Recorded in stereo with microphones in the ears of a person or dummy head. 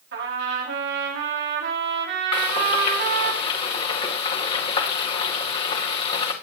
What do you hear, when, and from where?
0.1 s a trumpet: 65° right (ahead or behind), 5 m
2.3 s frying: 30° left (ahead or behind), 2 m